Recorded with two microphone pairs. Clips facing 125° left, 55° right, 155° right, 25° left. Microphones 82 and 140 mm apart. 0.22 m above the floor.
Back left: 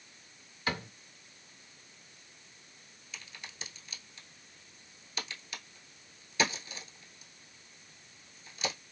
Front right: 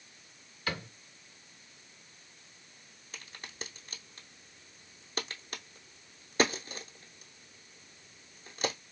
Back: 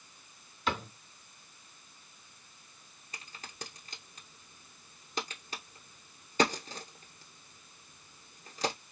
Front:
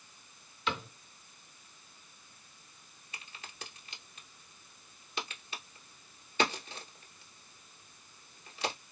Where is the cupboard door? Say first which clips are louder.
Back left 2 dB, back 2 dB; 170° right, 2 m.